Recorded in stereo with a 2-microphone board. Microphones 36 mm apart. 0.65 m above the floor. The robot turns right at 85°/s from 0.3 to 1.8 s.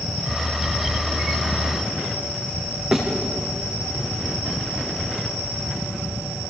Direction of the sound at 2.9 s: 5° right (ahead or behind).